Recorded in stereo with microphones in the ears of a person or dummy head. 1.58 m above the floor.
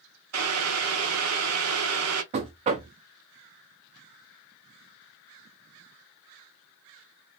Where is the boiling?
75° right (ahead or behind), 0.7 m.